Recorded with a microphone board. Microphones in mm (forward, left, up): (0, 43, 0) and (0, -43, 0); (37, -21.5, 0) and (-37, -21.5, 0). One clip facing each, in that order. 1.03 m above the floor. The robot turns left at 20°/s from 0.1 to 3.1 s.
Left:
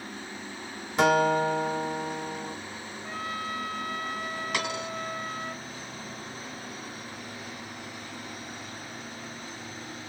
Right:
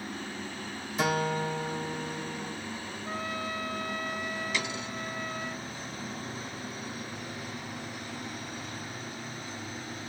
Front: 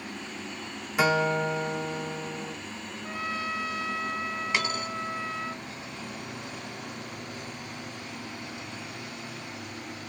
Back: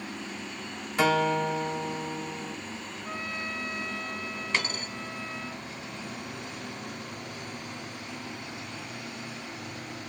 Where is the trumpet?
75° left, 1.2 m; by 5.5 s 70° left, 1.2 m.